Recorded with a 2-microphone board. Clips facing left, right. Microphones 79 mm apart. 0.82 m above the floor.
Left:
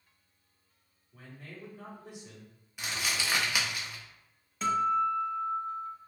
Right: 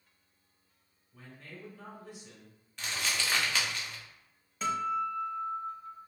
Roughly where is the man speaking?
Centre.